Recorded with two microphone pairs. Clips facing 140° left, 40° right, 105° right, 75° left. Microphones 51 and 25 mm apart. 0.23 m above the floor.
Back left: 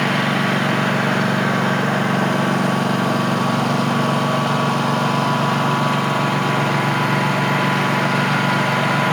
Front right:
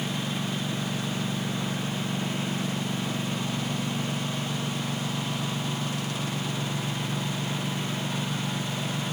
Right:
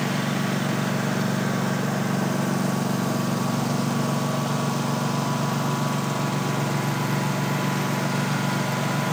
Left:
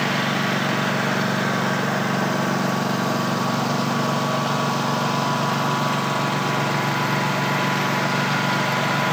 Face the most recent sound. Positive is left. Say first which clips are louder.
# back left 13 dB, left 4 dB
turn(degrees=135)